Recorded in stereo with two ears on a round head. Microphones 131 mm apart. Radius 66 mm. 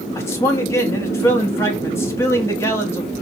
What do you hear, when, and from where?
0.1 s a man speaking: 20° left (ahead or behind), 1.1 m